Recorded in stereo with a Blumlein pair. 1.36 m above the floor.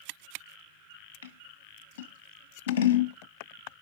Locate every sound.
1.2 s scissors: 60° left, 1.3 m